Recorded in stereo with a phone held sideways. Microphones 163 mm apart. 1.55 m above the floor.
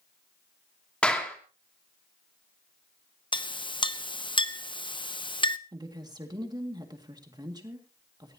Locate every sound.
1.0 s a clap: 5° left (ahead or behind), 2.5 m
3.3 s a clink: 30° left (ahead or behind), 0.7 m
5.7 s a woman speaking: 25° right (ahead or behind), 2 m